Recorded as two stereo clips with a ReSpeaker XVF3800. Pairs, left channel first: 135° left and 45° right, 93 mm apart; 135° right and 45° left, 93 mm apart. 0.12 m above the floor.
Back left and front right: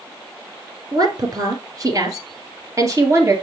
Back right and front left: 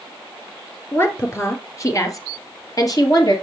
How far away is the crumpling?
No crumpling in this recording.